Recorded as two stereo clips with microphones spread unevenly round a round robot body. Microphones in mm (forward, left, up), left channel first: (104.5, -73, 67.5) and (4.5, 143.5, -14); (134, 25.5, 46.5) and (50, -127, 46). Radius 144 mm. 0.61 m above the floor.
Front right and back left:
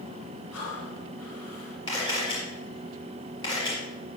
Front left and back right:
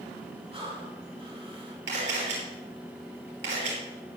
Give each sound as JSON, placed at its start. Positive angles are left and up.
{"t": 0.5, "sound": "breathing", "azimuth_deg": -65, "distance_m": 5.5}
{"t": 1.9, "sound": "a camera shutter", "azimuth_deg": -140, "distance_m": 5.5}